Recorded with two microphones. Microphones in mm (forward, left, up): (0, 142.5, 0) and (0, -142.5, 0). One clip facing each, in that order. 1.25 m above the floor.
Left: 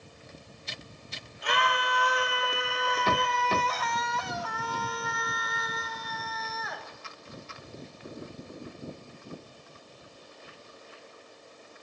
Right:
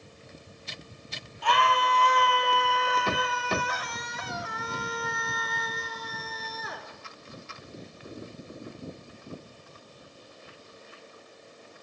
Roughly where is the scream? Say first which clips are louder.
Right 3 dB; centre.